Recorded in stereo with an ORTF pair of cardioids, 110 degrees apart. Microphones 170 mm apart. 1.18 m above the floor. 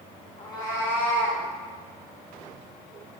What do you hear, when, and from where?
0.4 s a cat meowing: 30° left, 1.6 m; by 1.4 s 5° left, 3 m